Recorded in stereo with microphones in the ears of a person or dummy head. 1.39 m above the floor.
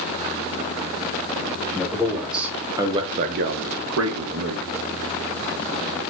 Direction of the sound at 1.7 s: Centre (ahead or behind).